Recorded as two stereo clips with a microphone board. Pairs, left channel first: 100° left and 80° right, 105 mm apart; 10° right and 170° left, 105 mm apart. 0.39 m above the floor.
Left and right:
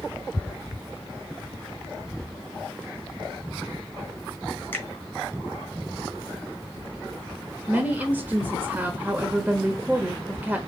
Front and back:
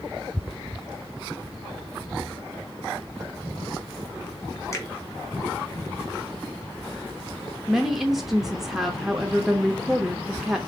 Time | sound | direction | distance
4.7 | a finger snap | 40° left | 1.5 m
7.7 | a woman speaking | 110° right | 0.8 m